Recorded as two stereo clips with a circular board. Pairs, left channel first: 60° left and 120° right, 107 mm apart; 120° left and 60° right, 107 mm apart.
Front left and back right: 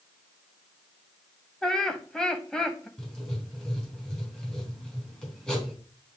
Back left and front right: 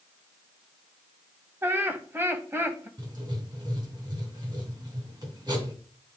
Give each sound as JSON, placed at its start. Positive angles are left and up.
{"t": 1.6, "sound": "laughter", "azimuth_deg": -20, "distance_m": 1.0}
{"t": 3.0, "sound": "writing", "azimuth_deg": -20, "distance_m": 2.5}